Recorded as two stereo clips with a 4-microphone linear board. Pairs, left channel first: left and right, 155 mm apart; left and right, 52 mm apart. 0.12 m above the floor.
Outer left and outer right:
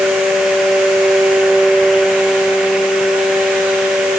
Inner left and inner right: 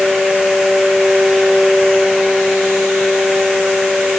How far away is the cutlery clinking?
I don't hear cutlery clinking.